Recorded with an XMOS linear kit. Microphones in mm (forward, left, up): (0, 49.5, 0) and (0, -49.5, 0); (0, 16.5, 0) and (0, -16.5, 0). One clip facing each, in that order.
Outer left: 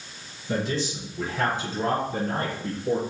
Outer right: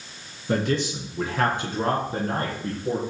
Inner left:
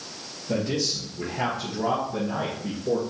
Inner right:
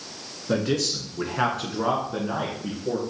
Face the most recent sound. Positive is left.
turn(degrees=-35)  # may be behind; listen again after turning